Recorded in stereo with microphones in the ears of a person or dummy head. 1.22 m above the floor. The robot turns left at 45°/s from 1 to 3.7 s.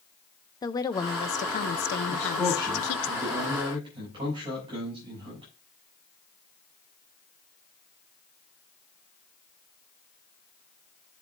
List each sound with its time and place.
0.6 s a woman speaking: 160° left, 0.7 m; by 3.1 s 65° left, 0.7 m
2.1 s a man speaking: 45° left, 7.5 m; by 5.5 s 25° right, 7.5 m